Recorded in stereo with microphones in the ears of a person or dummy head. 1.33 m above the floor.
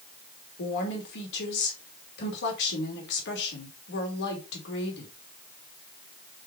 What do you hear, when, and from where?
0.6 s a woman speaking: 70° left (ahead or behind), 3 m